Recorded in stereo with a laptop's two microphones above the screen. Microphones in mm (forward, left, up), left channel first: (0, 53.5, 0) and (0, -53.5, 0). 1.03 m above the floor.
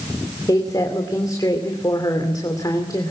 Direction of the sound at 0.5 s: 35° left (ahead or behind).